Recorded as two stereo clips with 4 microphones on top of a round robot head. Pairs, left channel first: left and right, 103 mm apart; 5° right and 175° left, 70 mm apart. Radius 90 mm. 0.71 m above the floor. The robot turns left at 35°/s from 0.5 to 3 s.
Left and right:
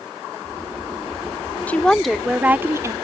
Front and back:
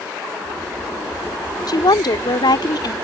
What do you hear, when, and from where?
1.7 s a woman speaking: 15° left; by 2.9 s 30° right